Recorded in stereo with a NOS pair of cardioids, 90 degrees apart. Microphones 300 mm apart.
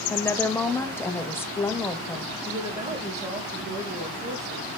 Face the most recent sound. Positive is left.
turn(degrees=-20)